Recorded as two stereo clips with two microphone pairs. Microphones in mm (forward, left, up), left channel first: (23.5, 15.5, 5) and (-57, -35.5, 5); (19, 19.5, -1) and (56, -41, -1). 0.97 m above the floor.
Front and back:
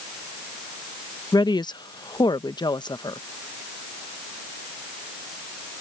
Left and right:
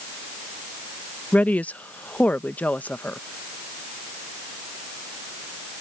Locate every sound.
1.3 s a woman speaking: 55° left